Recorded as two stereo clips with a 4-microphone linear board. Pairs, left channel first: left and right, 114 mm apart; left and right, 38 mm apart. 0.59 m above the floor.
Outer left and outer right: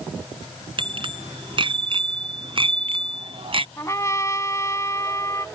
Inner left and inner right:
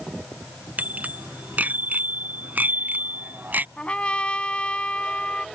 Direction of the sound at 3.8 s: 30° left (ahead or behind).